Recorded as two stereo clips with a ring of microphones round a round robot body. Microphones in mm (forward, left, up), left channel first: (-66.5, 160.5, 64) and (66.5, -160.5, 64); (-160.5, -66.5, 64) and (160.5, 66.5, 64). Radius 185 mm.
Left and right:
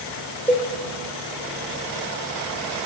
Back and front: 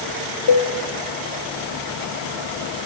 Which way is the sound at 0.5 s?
175° right.